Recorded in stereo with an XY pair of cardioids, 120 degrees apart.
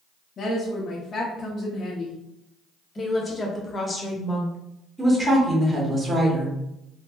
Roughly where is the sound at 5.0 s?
Ahead.